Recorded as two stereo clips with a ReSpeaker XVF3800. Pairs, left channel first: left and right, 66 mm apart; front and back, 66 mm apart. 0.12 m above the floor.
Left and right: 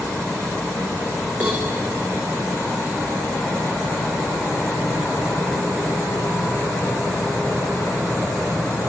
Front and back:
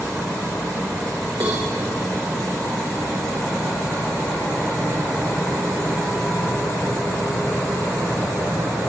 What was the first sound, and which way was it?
A cowbell, 155° right.